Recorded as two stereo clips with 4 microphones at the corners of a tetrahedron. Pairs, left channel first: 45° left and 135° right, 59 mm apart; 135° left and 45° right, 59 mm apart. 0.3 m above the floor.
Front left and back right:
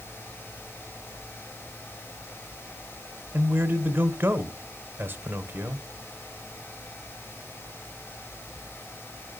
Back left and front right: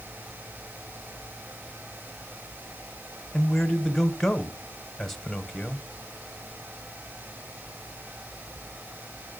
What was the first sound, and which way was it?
A man speaking, 145° right.